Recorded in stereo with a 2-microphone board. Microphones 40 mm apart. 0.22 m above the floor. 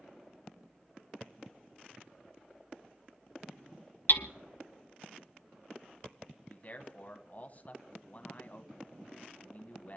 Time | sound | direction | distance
4.1 | hammering | 60° left (ahead or behind) | 0.7 m
6.5 | a man speaking | 40° left (ahead or behind) | 1.2 m